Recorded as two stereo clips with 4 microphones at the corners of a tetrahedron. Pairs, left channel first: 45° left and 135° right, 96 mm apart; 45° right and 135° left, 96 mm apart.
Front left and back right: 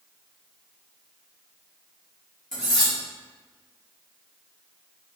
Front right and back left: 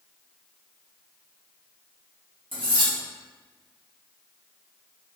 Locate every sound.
2.5 s cutlery clinking: 130° left, 1.0 m